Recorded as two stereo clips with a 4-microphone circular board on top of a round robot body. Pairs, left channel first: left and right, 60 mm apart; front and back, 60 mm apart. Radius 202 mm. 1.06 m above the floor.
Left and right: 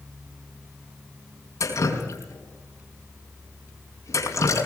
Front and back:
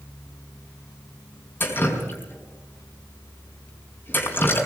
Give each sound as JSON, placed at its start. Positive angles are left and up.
{"t": 1.6, "sound": "dripping", "azimuth_deg": 55, "distance_m": 4.5}